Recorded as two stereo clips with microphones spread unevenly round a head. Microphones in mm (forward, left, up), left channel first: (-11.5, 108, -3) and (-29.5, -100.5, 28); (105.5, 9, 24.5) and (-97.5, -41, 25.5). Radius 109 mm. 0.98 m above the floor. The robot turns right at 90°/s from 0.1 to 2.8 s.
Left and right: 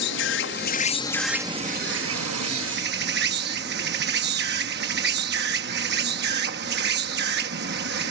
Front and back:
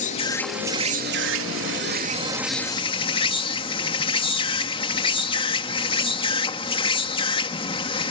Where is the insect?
65° left; by 8.1 s 50° right.